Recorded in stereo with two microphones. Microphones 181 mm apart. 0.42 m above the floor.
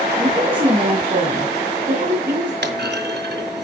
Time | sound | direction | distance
0.2 | a woman speaking | 25° right (ahead or behind) | 2.5 m
2.6 | a clunk | 70° right (ahead or behind) | 1.9 m